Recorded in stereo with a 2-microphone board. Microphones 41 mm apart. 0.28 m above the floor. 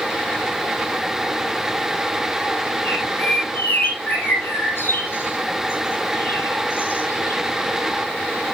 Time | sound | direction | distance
2.9 | a bird | 55° left (ahead or behind) | 6 m